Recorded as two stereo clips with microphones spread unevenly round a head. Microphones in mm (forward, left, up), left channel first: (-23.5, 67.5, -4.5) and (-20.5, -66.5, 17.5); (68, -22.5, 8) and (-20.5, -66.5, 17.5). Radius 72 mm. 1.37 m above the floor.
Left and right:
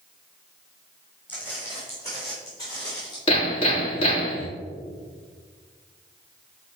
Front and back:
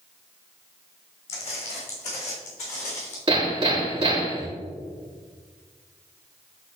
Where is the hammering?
140° left, 3 m.